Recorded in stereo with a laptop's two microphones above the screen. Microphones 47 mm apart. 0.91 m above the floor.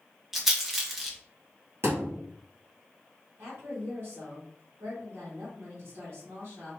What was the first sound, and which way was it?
A rattle, 10° right (ahead or behind).